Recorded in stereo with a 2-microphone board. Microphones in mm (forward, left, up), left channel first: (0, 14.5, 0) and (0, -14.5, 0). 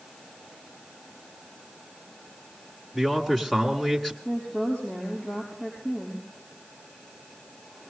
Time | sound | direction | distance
2.9 | a man speaking | 5° left (ahead or behind) | 1.6 m
4.2 | a woman speaking | 40° left (ahead or behind) | 5 m